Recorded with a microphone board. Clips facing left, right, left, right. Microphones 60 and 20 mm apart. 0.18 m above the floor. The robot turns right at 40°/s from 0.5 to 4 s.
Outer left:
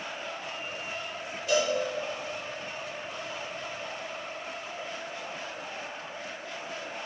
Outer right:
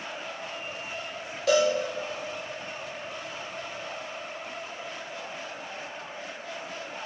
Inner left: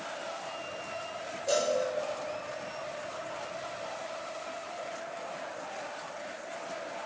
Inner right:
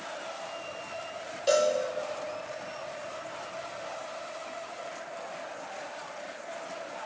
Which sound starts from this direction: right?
A cowbell, at 1.5 s.